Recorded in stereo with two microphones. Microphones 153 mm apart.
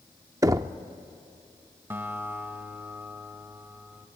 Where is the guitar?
15° right (ahead or behind), 1.1 m.